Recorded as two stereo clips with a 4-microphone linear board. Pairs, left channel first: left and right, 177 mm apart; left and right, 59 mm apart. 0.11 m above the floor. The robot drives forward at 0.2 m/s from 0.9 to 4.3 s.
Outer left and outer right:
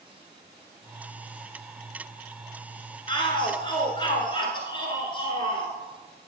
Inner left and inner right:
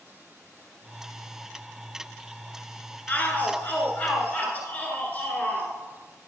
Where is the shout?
30° left (ahead or behind), 1.3 m.